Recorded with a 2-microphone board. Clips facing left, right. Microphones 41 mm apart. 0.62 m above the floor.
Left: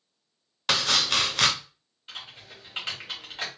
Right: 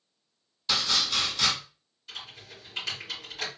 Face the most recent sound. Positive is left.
turn(degrees=35)  # may be behind; listen again after turning